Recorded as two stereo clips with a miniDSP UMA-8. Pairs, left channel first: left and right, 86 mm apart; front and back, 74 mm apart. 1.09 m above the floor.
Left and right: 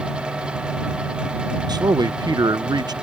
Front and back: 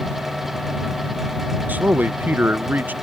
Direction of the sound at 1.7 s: 115° right.